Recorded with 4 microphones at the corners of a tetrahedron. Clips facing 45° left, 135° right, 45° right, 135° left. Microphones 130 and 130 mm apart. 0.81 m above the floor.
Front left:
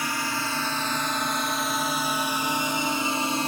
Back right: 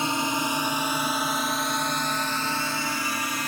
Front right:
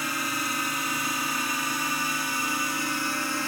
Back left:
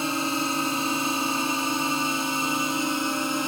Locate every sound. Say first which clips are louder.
0.0 s a drone: back right 3 dB, back left 5 dB; 175° left; by 3.5 s 80° left